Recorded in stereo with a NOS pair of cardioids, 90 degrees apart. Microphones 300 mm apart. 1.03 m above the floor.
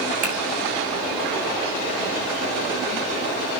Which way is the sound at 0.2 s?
70° right.